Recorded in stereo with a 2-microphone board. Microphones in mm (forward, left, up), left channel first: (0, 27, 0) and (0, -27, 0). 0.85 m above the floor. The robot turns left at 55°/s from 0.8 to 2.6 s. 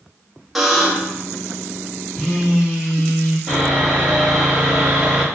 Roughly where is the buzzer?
Centre.